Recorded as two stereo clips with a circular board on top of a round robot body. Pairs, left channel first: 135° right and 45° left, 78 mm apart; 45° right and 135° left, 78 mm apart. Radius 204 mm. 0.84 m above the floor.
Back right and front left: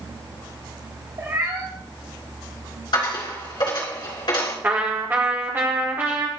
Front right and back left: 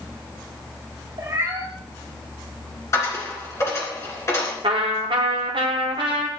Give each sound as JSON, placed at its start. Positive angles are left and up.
{"t": 1.2, "sound": "a cat meowing", "azimuth_deg": 90, "distance_m": 1.4}
{"t": 2.9, "sound": "a dropped coin", "azimuth_deg": -100, "distance_m": 3.0}
{"t": 4.6, "sound": "a trumpet", "azimuth_deg": 115, "distance_m": 0.8}